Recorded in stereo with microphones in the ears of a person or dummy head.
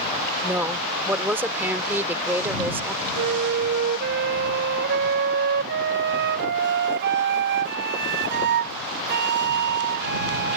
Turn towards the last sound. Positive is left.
turn(degrees=-55)  # may be behind; listen again after turning